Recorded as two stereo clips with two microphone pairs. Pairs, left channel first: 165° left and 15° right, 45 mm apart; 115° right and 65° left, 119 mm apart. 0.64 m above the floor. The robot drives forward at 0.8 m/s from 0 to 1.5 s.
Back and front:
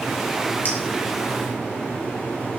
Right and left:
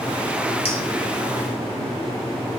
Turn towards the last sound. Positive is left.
turn(degrees=-160)